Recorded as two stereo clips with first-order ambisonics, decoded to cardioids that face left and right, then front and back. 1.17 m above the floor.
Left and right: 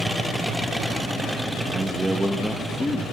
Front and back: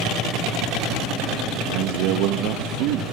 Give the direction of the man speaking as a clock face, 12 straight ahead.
5 o'clock.